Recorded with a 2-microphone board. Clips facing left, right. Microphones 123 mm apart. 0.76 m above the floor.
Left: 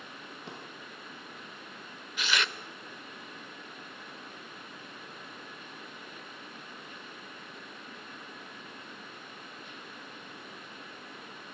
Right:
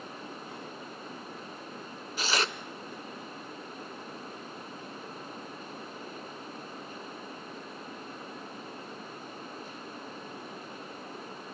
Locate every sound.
0.5 s a drawer: 85° left, 7.5 m
2.2 s tearing paper: 35° right (ahead or behind), 0.9 m